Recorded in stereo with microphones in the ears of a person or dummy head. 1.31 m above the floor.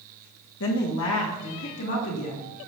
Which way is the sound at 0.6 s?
75° left (ahead or behind).